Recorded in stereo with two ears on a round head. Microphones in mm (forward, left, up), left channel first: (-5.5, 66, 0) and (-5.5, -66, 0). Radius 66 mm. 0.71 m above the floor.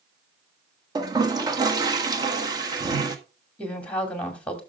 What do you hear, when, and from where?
0.9 s a toilet flushing: 25° right (ahead or behind), 1.3 m
3.6 s a woman speaking: 10° left (ahead or behind), 2.5 m